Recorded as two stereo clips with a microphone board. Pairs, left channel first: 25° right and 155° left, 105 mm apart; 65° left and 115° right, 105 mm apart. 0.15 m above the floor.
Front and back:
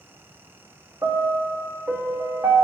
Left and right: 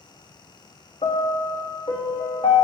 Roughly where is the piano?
Left.